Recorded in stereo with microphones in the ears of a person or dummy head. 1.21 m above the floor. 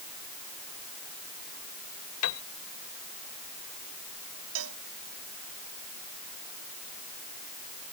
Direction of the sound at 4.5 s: 80° right.